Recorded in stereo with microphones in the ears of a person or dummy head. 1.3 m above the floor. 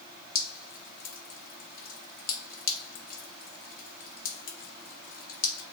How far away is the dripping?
About 0.8 m.